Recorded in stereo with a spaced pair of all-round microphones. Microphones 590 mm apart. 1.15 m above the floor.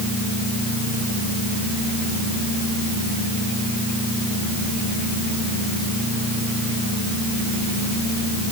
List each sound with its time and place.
Only background noise.